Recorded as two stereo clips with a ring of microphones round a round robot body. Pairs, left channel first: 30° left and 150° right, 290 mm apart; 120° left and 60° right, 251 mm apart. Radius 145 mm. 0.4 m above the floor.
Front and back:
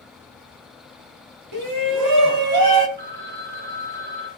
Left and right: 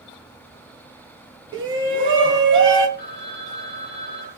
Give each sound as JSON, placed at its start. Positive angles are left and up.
{"t": 1.5, "sound": "a shout", "azimuth_deg": -135, "distance_m": 2.5}
{"t": 3.0, "sound": "a phone ringing", "azimuth_deg": 175, "distance_m": 5.5}